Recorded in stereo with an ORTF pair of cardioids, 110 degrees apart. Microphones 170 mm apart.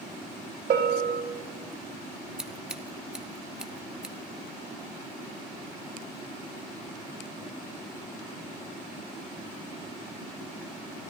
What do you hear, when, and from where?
0.7 s a bell: 70° right, 2.5 m
2.4 s scissors: 5° right, 0.8 m